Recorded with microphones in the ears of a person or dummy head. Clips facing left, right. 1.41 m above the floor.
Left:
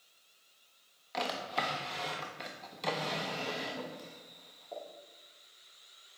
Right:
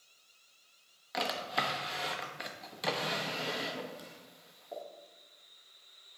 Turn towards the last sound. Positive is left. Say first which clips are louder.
# even
turn(degrees=-10)  # may be behind; listen again after turning